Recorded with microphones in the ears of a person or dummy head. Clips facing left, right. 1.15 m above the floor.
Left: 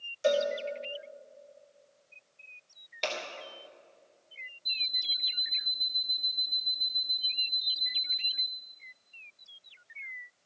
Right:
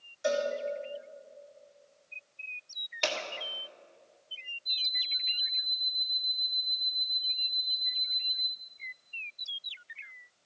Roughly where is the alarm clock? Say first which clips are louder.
Left 2 dB; left.